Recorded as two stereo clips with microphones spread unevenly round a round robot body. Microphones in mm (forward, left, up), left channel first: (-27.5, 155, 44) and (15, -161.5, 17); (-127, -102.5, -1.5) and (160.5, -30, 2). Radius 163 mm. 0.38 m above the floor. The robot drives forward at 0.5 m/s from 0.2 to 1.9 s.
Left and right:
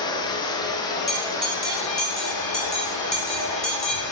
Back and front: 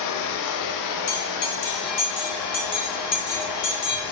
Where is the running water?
175° left, 1.1 m; by 4.1 s straight behind, 1.8 m.